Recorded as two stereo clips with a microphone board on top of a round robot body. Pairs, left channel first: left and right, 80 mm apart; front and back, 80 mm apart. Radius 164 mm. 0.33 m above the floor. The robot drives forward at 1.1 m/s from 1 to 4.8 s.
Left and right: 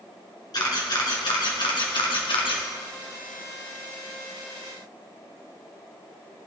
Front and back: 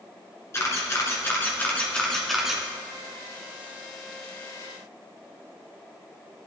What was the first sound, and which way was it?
A camera shutter, 55° left.